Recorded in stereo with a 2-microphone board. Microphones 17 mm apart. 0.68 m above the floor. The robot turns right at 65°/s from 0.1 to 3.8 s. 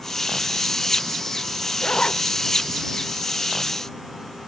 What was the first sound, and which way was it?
A zipper, 75° left (ahead or behind).